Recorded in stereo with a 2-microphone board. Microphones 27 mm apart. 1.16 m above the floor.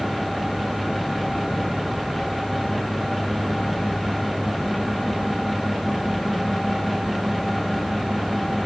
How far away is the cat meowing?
I don't hear a cat meowing.